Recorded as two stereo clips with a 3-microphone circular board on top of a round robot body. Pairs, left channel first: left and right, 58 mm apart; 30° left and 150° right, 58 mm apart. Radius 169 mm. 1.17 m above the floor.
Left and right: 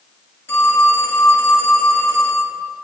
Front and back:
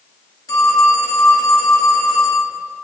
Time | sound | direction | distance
0.5 | a phone ringing | 40° left | 2.5 m